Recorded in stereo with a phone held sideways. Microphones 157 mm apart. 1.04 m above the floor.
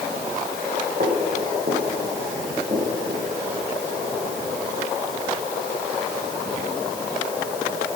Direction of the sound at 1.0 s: 70° right (ahead or behind).